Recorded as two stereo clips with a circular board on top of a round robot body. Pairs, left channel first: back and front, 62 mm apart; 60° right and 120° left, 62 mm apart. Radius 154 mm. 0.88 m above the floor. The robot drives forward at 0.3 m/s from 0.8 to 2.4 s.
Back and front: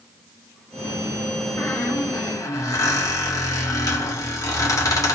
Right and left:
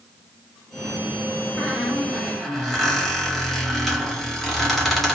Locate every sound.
1.6 s a squeak: 135° right, 0.9 m; by 5.2 s 145° right, 1.1 m